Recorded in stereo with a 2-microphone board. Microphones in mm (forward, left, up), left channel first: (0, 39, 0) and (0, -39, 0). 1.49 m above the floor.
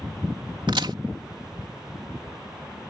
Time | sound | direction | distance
0.7 | a crack | 75° right (ahead or behind) | ?